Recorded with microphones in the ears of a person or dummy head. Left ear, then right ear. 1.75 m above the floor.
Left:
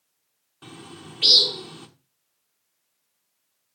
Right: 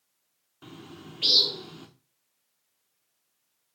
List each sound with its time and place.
0.6 s a bird: 10° left (ahead or behind), 1.1 m